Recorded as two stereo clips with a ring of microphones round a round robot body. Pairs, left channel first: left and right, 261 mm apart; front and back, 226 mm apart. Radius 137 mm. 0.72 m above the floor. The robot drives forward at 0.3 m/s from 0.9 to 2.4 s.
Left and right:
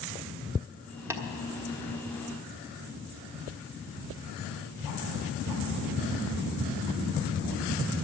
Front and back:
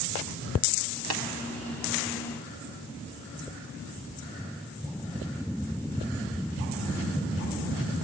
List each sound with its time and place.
1.1 s tapping: 170° right, 1.4 m